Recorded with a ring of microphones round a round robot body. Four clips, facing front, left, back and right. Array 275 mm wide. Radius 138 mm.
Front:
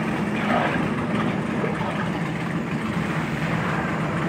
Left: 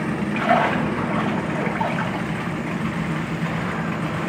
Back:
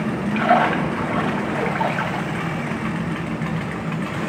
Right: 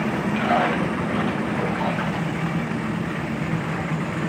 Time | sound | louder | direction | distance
0.3 | a splash | left 3 dB, back 7 dB | 165° left | 3.5 m